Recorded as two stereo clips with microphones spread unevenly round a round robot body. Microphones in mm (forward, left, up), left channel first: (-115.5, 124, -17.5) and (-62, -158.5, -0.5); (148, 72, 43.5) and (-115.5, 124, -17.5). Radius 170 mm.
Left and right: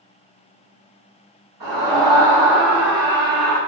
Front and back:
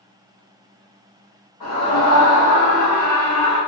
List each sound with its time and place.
1.6 s a scream: 90° right, 1.8 m